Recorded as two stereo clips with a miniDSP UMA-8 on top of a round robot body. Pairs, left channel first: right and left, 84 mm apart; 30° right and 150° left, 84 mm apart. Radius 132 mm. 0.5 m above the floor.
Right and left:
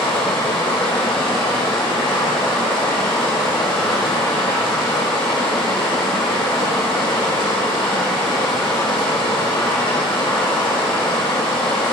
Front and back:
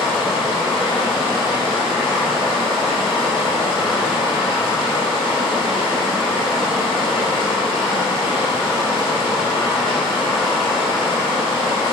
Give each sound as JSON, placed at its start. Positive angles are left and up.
{"t": 0.0, "sound": "running water", "azimuth_deg": -125, "distance_m": 2.0}